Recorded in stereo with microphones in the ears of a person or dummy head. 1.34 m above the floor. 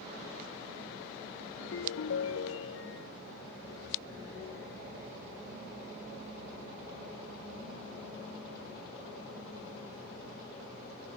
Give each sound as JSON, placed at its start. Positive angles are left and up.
{"t": 1.6, "sound": "a ringtone", "side_deg": 70}